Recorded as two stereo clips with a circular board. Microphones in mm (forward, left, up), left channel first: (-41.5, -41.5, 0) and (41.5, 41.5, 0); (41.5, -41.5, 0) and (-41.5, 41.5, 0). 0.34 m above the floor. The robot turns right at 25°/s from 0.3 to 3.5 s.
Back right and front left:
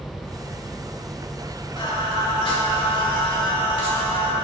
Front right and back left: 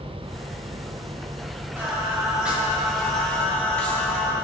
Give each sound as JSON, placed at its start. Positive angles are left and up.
{"t": 1.8, "sound": "singing", "azimuth_deg": -160, "distance_m": 2.0}